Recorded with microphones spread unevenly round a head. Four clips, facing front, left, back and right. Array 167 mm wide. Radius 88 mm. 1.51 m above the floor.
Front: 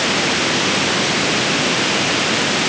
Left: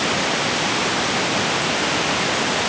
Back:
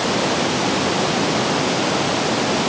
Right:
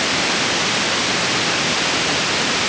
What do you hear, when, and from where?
Only background noise.